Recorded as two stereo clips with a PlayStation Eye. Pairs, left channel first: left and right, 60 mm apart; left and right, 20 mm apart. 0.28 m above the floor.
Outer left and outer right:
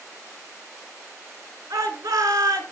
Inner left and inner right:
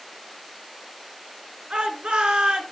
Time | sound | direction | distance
1.7 | a shout | 75° right (ahead or behind) | 3.5 m